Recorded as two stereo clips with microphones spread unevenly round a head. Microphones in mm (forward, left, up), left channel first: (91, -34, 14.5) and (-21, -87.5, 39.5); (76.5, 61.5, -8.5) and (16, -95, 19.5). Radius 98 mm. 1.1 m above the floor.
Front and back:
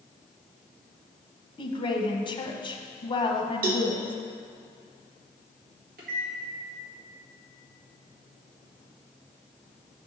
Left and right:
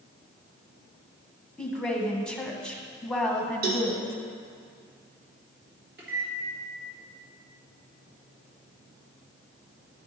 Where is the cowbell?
160° right, 0.7 m.